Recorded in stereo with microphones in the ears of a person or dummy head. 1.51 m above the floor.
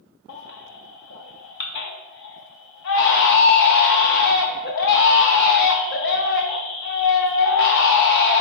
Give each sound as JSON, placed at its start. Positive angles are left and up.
{"t": 0.3, "sound": "a baby crying", "side_deg": 50, "distance_m": 0.5}